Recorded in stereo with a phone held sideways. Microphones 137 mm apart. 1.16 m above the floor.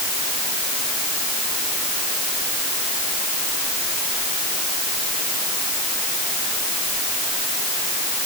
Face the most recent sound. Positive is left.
No sound to turn to.